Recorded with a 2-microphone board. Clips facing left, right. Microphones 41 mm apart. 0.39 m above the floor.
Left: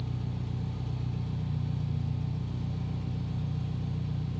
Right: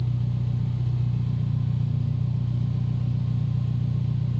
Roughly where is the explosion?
I don't hear an explosion.